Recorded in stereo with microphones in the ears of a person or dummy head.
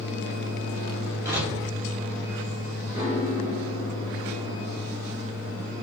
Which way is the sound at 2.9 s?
15° right (ahead or behind).